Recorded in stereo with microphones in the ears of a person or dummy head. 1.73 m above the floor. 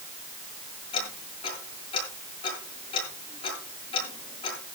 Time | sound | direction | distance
0.9 | ticking | 30° left (ahead or behind) | 9 m